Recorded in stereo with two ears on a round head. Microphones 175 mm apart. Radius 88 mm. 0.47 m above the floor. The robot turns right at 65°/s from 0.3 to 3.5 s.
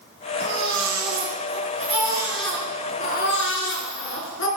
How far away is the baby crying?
About 4.5 m.